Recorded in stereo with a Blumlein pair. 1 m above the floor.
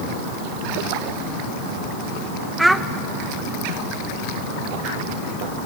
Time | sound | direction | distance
2.6 | a child speaking | 5° right | 0.6 m